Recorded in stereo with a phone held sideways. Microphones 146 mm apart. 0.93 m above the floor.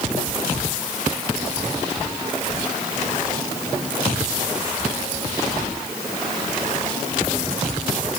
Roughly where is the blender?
No blender in this recording.